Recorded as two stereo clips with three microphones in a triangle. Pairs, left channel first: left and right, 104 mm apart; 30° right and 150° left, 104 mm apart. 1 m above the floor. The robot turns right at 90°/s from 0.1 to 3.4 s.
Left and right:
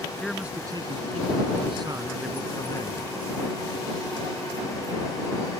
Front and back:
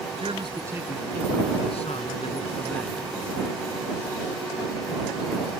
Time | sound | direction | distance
0.2 | a man speaking | 170° left | ?